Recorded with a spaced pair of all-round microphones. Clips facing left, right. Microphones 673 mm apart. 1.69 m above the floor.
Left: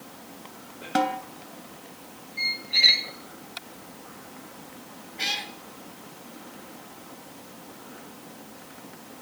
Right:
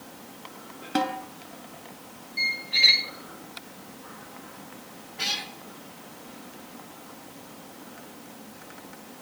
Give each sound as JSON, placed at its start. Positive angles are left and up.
{"t": 0.9, "sound": "a snare drum", "side_deg": 20, "distance_m": 3.0}
{"t": 2.4, "sound": "a squeak", "side_deg": -35, "distance_m": 1.7}
{"t": 5.2, "sound": "a cat meowing", "side_deg": -40, "distance_m": 2.0}